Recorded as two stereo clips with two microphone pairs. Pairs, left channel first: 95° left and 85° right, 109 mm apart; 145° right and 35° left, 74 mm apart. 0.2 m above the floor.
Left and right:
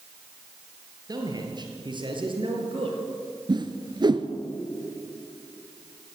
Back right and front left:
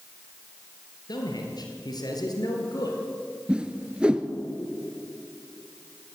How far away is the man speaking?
About 3.5 m.